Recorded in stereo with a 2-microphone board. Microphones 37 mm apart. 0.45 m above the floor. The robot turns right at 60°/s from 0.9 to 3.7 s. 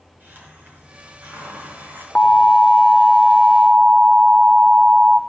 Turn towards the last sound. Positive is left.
turn(degrees=-155)